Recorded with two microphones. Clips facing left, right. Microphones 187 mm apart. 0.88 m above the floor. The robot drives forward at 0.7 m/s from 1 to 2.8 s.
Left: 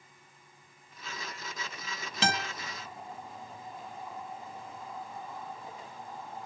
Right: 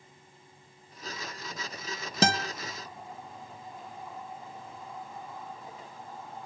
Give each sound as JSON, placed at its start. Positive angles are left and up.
{"t": 2.2, "sound": "a guitar", "side_deg": -45, "distance_m": 1.0}